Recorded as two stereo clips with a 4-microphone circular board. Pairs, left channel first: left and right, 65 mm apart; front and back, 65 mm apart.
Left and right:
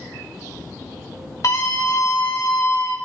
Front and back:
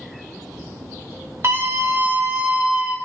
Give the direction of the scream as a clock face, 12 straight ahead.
8 o'clock.